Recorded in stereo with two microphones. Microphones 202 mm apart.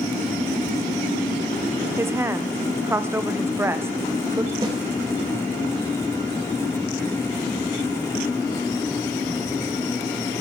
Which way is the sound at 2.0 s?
10° right (ahead or behind).